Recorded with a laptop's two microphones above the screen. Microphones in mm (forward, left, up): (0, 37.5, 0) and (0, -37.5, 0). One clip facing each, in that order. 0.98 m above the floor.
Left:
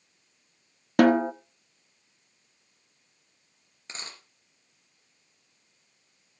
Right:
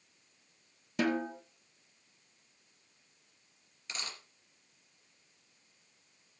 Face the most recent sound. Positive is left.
turn(degrees=30)  # may be behind; listen again after turning